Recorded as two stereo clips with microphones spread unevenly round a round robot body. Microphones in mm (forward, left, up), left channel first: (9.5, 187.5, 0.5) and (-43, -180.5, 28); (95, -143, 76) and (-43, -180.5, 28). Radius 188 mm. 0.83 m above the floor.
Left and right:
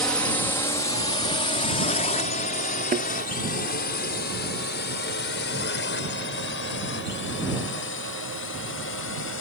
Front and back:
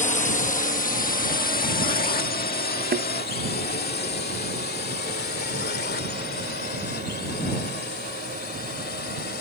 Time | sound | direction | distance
0.0 | a drone | straight ahead | ?
2.9 | a thud | 170° right | ?